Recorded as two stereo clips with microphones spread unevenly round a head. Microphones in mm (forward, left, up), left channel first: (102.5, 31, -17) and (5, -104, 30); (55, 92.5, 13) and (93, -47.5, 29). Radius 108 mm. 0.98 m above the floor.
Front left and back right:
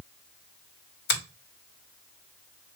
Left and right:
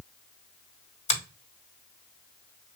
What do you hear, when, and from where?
1.1 s a finger snap: 65° left, 2 m